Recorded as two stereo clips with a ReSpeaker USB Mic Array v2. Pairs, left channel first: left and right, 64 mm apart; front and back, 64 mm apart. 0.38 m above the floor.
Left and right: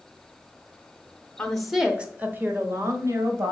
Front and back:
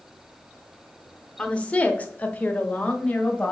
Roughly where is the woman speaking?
Ahead left.